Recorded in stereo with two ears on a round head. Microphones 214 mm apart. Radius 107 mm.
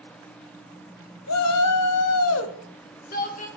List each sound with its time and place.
1.3 s a shout: 65° left (ahead or behind), 0.9 m; by 3.5 s 35° left (ahead or behind), 1.5 m